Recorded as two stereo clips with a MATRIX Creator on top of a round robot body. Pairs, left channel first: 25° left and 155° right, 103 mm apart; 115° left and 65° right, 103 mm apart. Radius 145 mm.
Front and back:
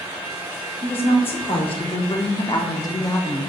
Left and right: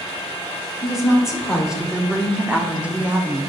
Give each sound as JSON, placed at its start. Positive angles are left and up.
{"t": 0.8, "sound": "a woman speaking", "azimuth_deg": 20, "distance_m": 1.9}